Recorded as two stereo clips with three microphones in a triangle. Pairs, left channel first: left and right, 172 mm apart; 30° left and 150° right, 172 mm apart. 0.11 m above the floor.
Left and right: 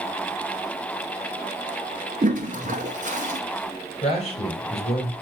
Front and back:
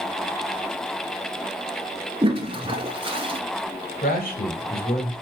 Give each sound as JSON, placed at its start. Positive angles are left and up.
{"t": 2.2, "sound": "a toilet flushing", "azimuth_deg": -100, "distance_m": 1.0}
{"t": 4.0, "sound": "a man speaking", "azimuth_deg": 45, "distance_m": 3.0}